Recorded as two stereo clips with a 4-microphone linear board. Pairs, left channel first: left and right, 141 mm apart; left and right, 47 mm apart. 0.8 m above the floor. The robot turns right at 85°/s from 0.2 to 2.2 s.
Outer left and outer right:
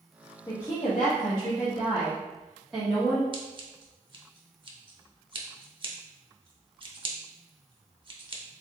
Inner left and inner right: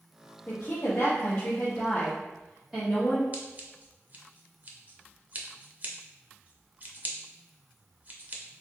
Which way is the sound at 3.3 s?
35° right (ahead or behind).